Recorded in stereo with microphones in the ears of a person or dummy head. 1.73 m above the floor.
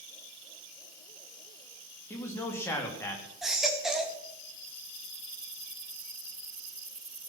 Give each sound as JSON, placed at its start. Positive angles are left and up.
{"t": 2.1, "sound": "a man speaking", "side_deg": 15, "distance_m": 3.5}
{"t": 3.4, "sound": "a baby crying", "side_deg": 0, "distance_m": 2.0}